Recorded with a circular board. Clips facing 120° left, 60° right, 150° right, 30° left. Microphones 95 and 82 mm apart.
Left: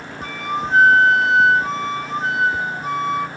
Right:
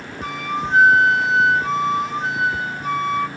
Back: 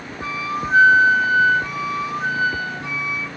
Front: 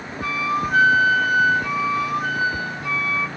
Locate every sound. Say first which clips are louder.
0.2 s a flute: even, front 3 dB; 155° left, 1.0 m